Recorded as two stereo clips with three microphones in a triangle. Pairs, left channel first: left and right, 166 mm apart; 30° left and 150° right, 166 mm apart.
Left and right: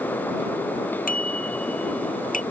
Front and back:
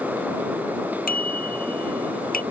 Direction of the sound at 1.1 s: 60° left.